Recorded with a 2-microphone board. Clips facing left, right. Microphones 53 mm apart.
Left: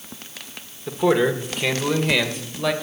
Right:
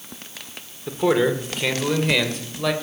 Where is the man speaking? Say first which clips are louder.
Even; centre (ahead or behind), 1.0 m.